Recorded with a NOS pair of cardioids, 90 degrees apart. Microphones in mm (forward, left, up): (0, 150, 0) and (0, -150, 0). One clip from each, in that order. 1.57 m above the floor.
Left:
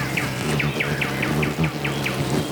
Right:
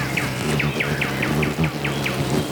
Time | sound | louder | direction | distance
0.0 | an insect | right 1 dB | 20° right | ?